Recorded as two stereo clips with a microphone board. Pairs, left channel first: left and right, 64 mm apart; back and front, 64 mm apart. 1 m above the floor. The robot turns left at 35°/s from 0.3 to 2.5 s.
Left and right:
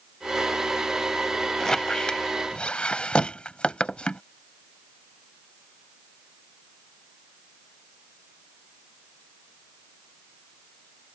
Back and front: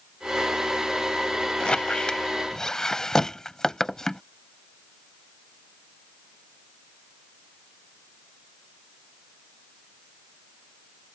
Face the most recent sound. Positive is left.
turn(degrees=120)